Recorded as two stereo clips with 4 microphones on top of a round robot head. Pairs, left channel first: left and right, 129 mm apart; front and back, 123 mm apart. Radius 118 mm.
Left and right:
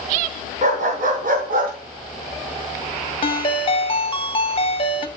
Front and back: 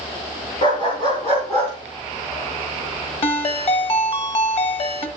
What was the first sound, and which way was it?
A dog barking, 65° right.